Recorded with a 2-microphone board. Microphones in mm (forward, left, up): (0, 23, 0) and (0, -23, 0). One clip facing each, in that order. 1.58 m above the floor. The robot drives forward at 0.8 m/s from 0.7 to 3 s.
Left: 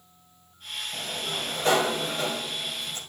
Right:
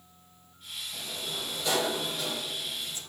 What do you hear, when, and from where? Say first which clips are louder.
0.9 s a sliding door: left 5 dB; 35° left (ahead or behind), 2 m; by 3.0 s 40° left (ahead or behind), 1.8 m